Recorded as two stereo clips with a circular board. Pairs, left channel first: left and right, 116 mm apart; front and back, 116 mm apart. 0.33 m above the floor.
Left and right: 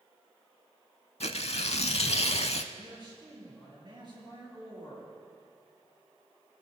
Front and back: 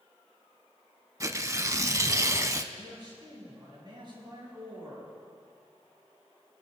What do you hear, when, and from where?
1.2 s tearing paper: 120° left, 0.5 m
2.7 s a man speaking: 135° right, 5.5 m